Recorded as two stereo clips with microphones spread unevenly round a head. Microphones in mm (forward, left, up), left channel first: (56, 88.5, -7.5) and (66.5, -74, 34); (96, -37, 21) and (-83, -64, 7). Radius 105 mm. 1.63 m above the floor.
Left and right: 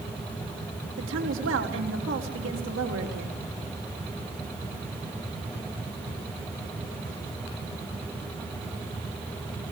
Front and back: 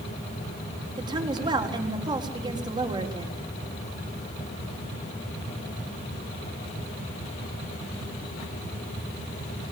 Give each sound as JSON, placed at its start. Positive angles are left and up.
{"t": 1.0, "sound": "a woman speaking", "azimuth_deg": -105, "distance_m": 4.0}